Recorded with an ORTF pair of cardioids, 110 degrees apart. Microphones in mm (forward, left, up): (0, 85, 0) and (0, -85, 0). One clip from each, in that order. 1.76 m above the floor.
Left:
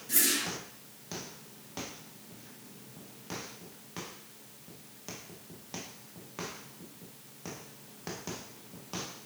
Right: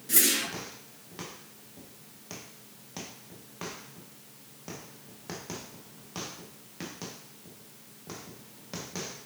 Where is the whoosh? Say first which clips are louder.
Right 3 dB; 25° right, 2.0 m.